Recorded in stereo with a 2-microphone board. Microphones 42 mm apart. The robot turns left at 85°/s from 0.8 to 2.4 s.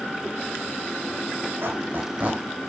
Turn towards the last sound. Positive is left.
turn(degrees=-20)  # may be behind; listen again after turning